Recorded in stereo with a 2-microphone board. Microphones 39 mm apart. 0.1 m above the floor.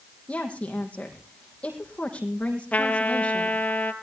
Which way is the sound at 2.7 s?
40° left (ahead or behind).